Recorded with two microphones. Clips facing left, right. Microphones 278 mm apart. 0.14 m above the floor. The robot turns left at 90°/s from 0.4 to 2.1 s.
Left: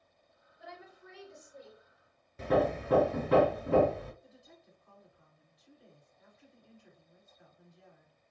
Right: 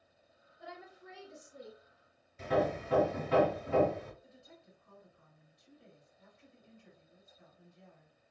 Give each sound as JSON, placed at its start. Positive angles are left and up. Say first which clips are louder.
{"t": 0.6, "sound": "a woman speaking", "louder": "right 1 dB", "azimuth_deg": 10, "distance_m": 1.9}
{"t": 2.4, "sound": "hammering", "louder": "left 3 dB", "side_deg": 65, "distance_m": 0.6}
{"t": 4.2, "sound": "a woman speaking", "louder": "even", "side_deg": -30, "distance_m": 1.8}